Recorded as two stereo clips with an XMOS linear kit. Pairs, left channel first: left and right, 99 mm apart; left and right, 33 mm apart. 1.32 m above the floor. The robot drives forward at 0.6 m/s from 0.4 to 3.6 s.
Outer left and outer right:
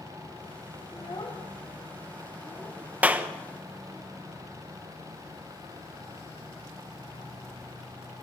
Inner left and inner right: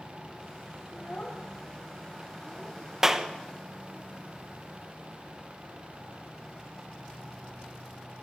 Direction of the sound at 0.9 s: 50° left (ahead or behind).